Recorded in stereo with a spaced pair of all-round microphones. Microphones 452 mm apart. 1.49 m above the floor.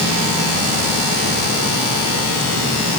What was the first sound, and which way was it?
Only background noise.